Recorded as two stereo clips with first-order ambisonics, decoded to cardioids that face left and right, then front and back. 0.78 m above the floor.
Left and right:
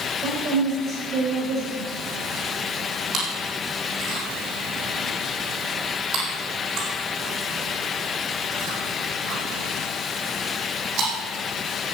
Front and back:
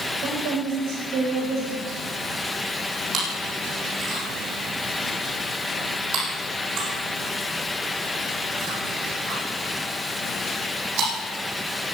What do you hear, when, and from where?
0.2 s a woman speaking: 150° right, 4 m
3.1 s chewing: 140° right, 7.5 m